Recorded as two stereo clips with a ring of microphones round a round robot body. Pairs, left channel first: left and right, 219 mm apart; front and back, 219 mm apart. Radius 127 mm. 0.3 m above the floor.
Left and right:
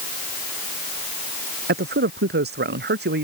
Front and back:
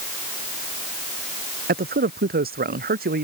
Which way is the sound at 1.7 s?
135° right.